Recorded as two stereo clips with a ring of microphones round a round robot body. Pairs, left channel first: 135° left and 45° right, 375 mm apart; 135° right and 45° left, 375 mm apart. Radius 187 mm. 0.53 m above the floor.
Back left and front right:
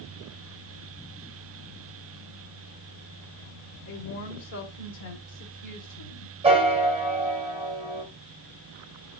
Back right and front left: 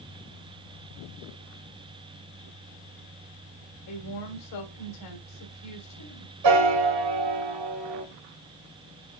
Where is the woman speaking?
Straight behind, 1.8 m.